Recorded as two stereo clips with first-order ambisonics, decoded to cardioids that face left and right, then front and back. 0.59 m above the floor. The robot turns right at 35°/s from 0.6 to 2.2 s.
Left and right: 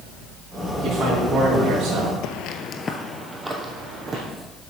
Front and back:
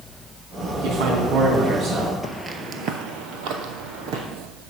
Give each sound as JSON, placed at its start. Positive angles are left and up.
{"t": 0.8, "sound": "a man speaking", "azimuth_deg": 175, "distance_m": 3.5}
{"t": 2.2, "sound": "footsteps", "azimuth_deg": 85, "distance_m": 0.9}